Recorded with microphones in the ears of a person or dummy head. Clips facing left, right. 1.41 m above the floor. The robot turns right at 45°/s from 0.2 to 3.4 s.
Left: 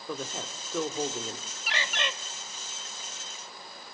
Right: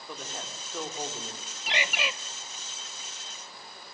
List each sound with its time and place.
0.1 s a man speaking: 75° left, 3.5 m; by 1.6 s 135° left, 3.5 m
1.7 s a bird: 15° right (ahead or behind), 0.9 m; by 2.1 s 5° left (ahead or behind), 0.9 m